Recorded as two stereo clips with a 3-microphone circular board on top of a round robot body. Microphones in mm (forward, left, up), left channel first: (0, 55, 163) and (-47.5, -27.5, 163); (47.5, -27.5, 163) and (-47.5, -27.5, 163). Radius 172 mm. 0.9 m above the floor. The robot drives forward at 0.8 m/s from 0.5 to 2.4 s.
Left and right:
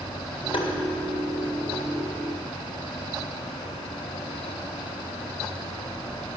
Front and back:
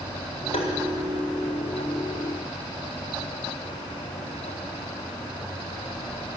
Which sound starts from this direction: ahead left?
Tapping, at 0.5 s.